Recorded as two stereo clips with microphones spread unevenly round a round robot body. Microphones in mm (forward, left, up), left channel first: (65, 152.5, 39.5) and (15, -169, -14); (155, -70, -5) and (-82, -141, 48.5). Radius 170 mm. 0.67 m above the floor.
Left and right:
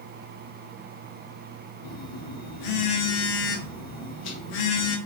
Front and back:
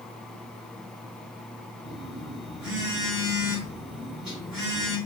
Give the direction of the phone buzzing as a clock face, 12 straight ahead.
8 o'clock.